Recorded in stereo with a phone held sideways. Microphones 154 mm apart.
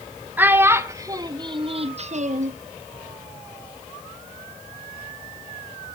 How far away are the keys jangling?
I don't hear keys jangling.